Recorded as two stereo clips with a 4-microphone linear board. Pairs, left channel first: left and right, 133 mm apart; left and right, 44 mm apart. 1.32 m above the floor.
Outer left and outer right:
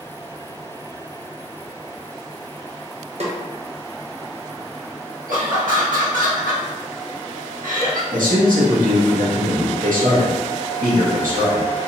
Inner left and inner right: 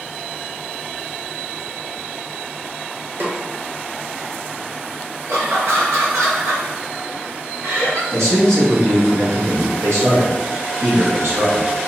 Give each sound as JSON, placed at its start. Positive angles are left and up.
{"t": 3.2, "sound": "a snare drum", "side_deg": -55, "distance_m": 0.9}
{"t": 5.3, "sound": "laughter", "side_deg": -85, "distance_m": 1.6}
{"t": 8.1, "sound": "a man speaking", "side_deg": -80, "distance_m": 1.5}